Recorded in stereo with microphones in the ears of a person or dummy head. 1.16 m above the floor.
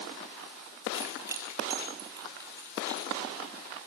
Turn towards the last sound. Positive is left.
turn(degrees=-25)  # may be behind; listen again after turning